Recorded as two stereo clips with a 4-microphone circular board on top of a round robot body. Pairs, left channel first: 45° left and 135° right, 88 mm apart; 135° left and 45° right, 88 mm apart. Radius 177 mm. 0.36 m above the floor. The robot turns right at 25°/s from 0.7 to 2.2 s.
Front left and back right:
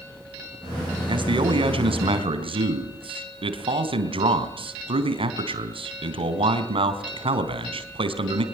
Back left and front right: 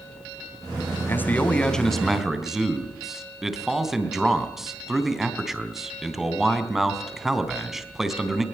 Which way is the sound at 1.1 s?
160° right.